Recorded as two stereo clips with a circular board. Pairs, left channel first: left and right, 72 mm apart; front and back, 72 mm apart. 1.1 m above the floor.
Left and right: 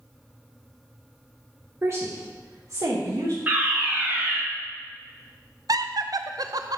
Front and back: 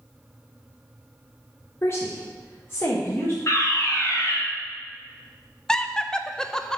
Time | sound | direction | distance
1.8 | a woman speaking | 45° right | 0.7 m
3.5 | a fire alarm | 30° right | 1.6 m
5.7 | laughter | 80° right | 0.5 m